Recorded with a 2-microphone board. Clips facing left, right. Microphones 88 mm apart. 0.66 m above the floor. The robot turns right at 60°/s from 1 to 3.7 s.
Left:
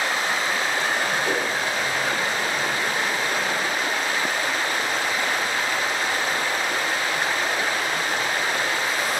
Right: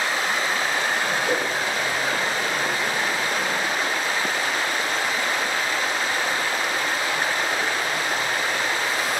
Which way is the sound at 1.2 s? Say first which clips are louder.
Right 1 dB; 70° left (ahead or behind).